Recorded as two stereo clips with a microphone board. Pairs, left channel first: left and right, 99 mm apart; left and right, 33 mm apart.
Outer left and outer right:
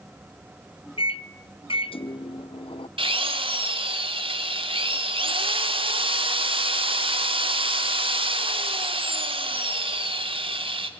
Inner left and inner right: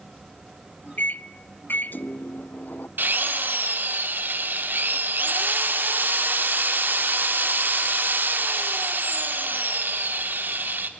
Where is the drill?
65° right (ahead or behind), 1.4 m.